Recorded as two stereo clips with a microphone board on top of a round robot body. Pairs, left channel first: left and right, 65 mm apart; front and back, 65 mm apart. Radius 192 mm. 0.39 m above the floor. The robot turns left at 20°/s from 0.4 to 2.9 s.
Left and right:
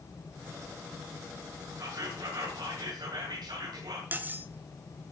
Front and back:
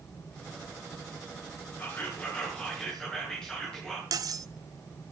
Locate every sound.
1.8 s whispering: 60° right, 6 m; by 4.0 s 80° right, 6 m
4.1 s cutlery clinking: 155° right, 1.2 m